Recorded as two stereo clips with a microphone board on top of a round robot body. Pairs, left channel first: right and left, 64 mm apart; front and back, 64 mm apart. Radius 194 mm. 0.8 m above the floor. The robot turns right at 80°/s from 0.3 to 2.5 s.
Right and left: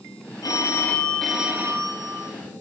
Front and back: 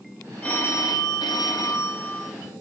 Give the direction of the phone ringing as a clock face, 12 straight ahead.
2 o'clock.